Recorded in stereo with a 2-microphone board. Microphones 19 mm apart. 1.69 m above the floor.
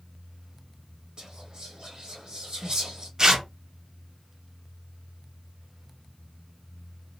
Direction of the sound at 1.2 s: 40° right (ahead or behind).